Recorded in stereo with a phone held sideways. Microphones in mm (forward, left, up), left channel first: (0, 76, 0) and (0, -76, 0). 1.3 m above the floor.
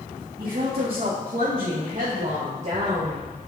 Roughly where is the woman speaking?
Right.